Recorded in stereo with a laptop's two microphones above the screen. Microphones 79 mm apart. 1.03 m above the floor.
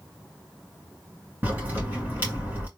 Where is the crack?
20° right (ahead or behind), 2 m.